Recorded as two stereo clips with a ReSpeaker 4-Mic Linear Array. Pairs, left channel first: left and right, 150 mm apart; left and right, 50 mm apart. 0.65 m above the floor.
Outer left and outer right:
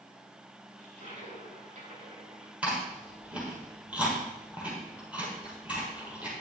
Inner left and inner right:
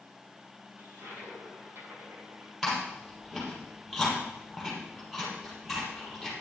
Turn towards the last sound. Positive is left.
turn(degrees=-10)  # may be behind; listen again after turning